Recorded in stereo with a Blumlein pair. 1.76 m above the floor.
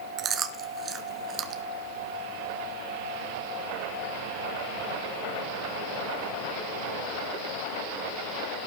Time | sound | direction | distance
0.2 | chewing | 25° right | 1.3 m